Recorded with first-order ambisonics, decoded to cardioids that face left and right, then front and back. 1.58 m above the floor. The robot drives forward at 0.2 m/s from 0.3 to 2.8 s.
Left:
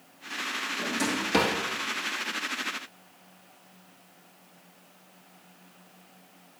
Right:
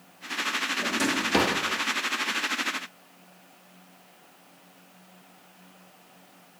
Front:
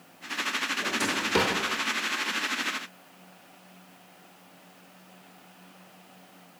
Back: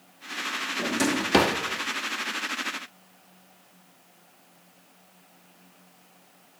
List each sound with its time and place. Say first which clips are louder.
0.8 s a drawer: right 2 dB, back 5 dB; 175° right, 1.4 m